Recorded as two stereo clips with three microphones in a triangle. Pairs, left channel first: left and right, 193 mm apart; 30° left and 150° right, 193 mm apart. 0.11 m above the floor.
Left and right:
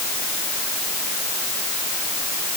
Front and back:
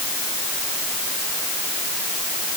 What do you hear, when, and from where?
Only background noise.